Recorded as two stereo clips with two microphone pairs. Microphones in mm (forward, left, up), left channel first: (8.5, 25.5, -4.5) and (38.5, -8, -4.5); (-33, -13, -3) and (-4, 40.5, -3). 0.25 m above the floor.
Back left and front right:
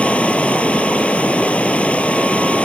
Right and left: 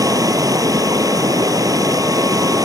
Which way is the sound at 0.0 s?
75° left.